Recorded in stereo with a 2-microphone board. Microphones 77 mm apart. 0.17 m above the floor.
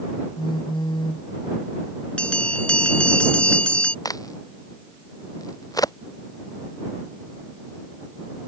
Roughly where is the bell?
Centre.